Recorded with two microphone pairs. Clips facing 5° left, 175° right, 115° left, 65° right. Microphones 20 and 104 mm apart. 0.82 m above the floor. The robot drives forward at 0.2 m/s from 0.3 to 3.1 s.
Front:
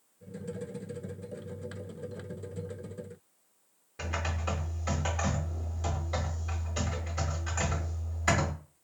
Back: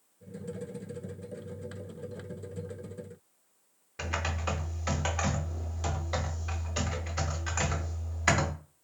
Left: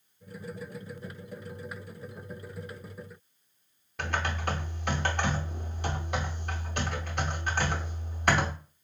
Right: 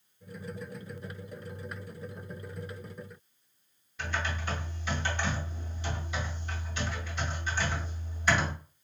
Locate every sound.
4.0 s typing on a keyboard: 135° left, 0.7 m